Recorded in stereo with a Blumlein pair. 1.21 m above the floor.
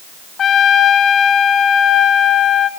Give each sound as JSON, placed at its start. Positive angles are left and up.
{"t": 0.4, "sound": "a trumpet", "azimuth_deg": 25, "distance_m": 1.1}